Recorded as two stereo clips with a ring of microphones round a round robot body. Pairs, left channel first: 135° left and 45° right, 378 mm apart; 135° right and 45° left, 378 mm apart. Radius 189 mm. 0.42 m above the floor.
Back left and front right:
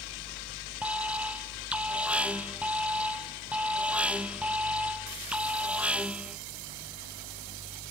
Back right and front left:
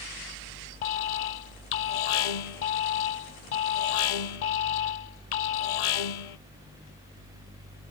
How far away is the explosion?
I don't hear an explosion.